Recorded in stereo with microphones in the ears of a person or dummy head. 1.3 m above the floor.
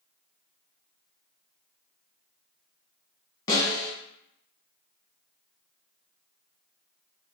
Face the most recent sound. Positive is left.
turn(degrees=25)  # may be behind; listen again after turning